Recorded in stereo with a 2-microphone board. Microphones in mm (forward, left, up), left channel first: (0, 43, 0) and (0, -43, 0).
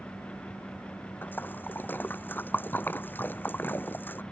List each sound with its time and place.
1.2 s a splash: 25° left (ahead or behind)